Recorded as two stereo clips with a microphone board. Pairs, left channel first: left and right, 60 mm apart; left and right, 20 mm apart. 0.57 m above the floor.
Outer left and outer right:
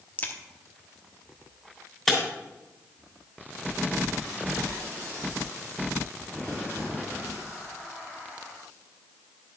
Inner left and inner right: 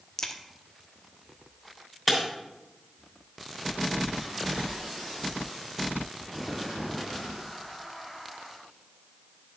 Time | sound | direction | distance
0.2 | a crack | 30° left (ahead or behind) | 1.1 m
2.1 | breaking glass | 5° left (ahead or behind) | 2.5 m